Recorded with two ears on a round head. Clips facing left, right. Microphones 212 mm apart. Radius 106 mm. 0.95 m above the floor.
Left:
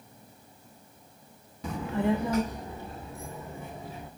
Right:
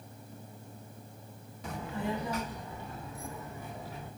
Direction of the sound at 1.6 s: 70° left (ahead or behind).